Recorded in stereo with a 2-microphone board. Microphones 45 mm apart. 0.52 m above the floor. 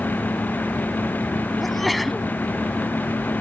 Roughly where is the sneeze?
Centre.